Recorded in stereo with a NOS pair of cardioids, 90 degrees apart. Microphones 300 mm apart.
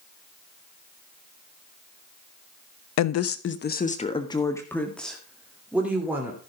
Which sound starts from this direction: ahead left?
A woman speaking, at 3.0 s.